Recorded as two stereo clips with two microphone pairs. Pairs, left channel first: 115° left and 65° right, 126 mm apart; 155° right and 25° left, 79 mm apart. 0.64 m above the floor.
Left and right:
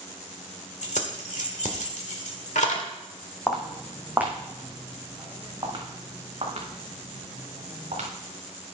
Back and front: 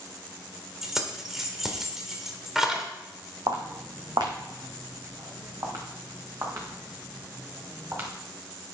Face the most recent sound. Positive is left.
turn(degrees=-35)